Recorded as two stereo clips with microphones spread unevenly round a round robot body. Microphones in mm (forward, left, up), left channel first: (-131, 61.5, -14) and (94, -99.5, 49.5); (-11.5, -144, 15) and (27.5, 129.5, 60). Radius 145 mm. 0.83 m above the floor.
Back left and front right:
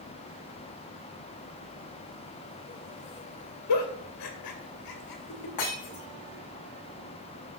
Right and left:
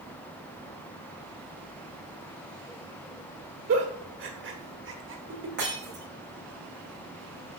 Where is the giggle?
130° left, 1.9 m.